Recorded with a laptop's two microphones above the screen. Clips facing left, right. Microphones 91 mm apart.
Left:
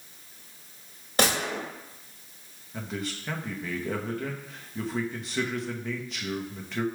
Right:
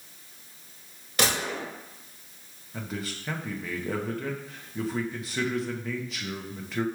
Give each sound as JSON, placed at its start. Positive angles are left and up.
{"t": 1.2, "sound": "a gunshot", "side_deg": 35, "distance_m": 1.7}
{"t": 2.7, "sound": "a man speaking", "side_deg": 0, "distance_m": 0.6}